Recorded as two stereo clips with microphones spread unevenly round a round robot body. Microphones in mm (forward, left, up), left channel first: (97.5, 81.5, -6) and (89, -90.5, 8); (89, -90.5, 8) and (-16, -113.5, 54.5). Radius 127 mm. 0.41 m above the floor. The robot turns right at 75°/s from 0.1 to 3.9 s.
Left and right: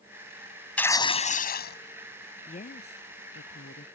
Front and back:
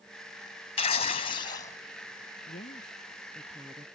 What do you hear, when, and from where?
0.8 s tearing paper: 5° left; by 1.8 s 80° left
2.5 s a woman speaking: 35° left; by 3.9 s 140° left